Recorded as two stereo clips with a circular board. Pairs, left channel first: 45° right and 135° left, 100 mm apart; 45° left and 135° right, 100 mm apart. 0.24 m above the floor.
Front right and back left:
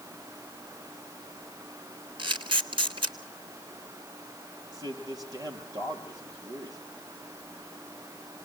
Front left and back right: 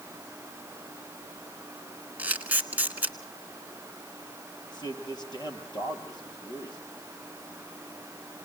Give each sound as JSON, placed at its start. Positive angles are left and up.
{"t": 2.2, "sound": "a camera shutter", "azimuth_deg": 155, "distance_m": 1.8}
{"t": 4.7, "sound": "a man speaking", "azimuth_deg": 85, "distance_m": 6.0}